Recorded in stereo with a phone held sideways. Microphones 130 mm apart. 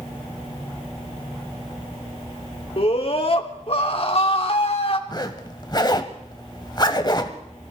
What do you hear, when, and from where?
2.8 s a scream: 50° left (ahead or behind), 2 m
5.1 s a zipper: 35° left (ahead or behind), 1.3 m